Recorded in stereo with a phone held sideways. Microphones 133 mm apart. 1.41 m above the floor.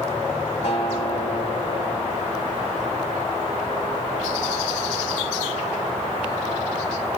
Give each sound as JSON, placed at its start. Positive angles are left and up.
{"t": 0.6, "sound": "a guitar", "side_deg": 55, "distance_m": 3.5}